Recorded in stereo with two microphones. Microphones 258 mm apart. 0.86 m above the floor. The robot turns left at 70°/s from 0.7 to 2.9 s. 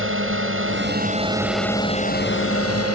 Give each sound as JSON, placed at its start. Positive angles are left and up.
{"t": 0.0, "sound": "a drone", "azimuth_deg": -120}